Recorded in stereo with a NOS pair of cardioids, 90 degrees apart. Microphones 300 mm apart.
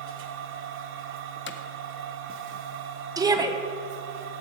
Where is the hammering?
40° left, 0.7 m.